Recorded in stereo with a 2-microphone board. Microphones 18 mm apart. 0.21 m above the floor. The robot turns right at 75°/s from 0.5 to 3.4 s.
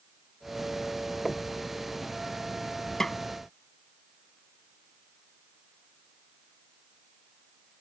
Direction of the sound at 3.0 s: 30° left (ahead or behind).